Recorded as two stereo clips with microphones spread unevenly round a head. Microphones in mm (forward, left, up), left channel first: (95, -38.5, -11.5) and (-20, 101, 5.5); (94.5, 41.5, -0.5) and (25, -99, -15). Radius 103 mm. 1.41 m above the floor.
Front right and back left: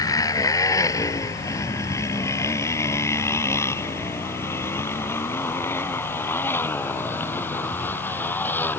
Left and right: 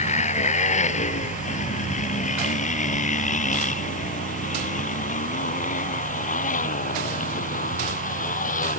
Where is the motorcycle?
20° left; by 8.8 s 30° left.